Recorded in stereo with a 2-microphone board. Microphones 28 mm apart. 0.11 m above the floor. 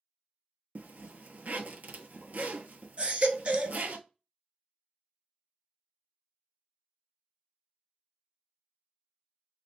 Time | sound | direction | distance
0.8 | a zipper | 60° right (ahead or behind) | 0.6 m
3.0 | a baby crying | 45° right (ahead or behind) | 0.6 m